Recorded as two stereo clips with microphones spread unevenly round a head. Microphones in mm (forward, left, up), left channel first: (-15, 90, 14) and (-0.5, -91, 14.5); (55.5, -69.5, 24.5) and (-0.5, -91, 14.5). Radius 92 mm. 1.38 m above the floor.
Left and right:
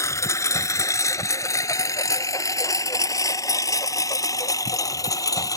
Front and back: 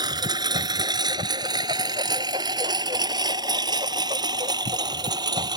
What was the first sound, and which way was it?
A lawn mower, 170° left.